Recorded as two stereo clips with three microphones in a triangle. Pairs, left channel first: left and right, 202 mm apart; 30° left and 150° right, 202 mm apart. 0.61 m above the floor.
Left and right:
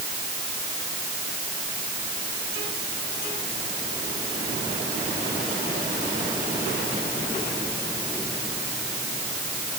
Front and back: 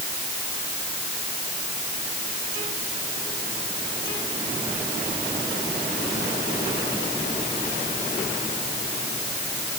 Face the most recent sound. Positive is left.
No sound to turn to.